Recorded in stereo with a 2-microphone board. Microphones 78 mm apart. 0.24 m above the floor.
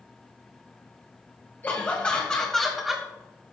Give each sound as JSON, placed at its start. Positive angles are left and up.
{"t": 1.6, "sound": "laughter", "side_deg": 25, "distance_m": 1.6}